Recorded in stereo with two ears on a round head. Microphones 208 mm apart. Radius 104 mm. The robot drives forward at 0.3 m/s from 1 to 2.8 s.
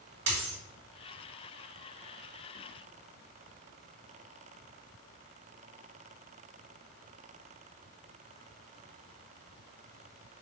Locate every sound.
0.3 s a dropped coin: 55° right (ahead or behind), 2 m